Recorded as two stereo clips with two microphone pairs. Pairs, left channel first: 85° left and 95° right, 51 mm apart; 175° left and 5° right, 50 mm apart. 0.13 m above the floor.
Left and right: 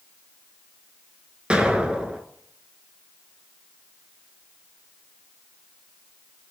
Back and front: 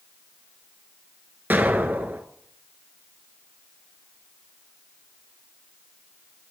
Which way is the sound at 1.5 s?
40° right.